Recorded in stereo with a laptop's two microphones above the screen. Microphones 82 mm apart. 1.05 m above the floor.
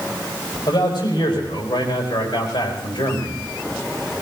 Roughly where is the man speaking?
Left.